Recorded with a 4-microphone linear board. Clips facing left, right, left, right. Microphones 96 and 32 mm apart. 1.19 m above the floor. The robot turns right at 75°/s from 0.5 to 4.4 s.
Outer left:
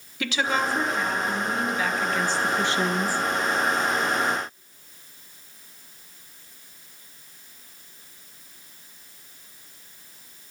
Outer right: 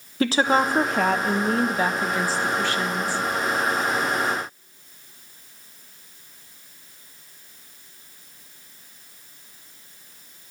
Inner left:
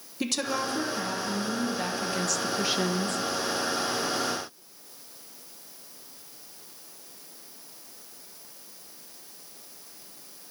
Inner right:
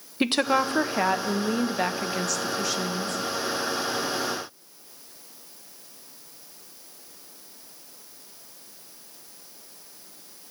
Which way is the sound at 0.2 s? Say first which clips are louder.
Outer right 6 dB, inner right 7 dB; 140° right.